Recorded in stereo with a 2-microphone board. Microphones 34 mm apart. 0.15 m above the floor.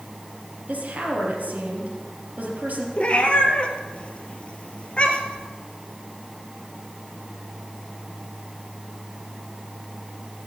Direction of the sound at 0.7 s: 60° right (ahead or behind).